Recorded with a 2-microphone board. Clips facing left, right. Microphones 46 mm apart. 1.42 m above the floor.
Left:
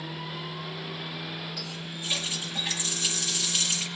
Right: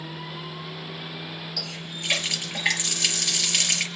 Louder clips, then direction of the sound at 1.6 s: Right 2 dB; 75° right (ahead or behind).